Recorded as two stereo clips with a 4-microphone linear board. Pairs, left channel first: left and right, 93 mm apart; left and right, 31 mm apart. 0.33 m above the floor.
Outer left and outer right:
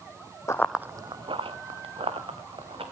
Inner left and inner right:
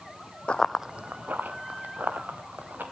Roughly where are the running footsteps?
Left.